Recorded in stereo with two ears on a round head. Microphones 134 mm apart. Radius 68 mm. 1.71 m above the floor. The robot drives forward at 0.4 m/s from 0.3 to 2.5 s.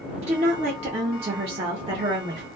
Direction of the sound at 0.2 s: 40° right (ahead or behind).